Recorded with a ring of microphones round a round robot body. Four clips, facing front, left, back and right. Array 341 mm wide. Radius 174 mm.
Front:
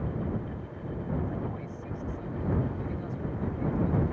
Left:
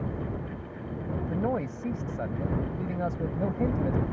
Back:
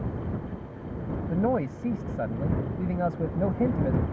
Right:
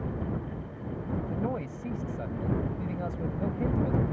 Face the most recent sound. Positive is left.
turn(degrees=165)